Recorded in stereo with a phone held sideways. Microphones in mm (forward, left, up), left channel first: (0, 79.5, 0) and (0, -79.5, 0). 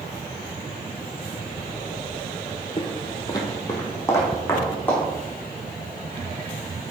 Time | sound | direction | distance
2.8 | footsteps | 35° left (ahead or behind) | 0.9 m